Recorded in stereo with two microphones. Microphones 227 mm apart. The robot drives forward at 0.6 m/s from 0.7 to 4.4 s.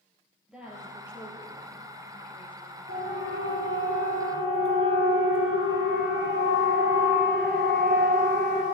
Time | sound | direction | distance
0.5 | a woman speaking | 5° right (ahead or behind) | 3 m
2.9 | a siren | 70° right (ahead or behind) | 5 m